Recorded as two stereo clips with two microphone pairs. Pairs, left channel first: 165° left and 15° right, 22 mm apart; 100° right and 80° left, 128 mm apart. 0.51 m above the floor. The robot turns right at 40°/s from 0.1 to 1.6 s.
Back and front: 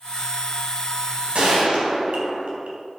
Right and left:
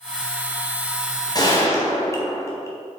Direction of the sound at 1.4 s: 45° right.